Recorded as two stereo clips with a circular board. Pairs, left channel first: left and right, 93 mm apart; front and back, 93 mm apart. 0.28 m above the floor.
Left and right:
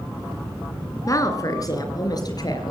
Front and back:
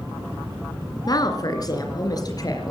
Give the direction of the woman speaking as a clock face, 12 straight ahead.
11 o'clock.